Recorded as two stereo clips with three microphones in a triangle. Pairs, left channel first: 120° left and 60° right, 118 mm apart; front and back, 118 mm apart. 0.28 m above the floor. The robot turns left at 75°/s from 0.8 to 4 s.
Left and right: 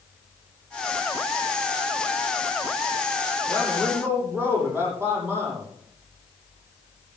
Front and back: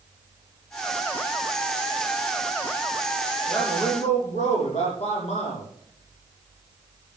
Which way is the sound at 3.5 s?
50° left.